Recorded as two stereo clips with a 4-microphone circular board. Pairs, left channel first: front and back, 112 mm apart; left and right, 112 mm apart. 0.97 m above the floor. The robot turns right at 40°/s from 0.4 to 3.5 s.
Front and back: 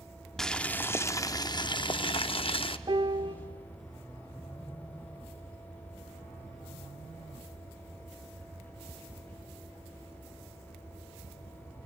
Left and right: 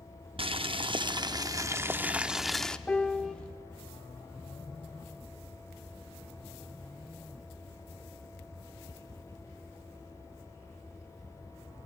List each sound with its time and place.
0.4 s boiling: 85° right, 0.7 m; by 2.8 s 10° left, 0.7 m
2.9 s a piano: 165° left, 0.6 m; by 3.4 s straight behind, 0.6 m